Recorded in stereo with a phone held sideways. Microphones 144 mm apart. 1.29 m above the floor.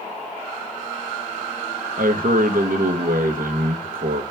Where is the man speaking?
75° right (ahead or behind), 1.3 m.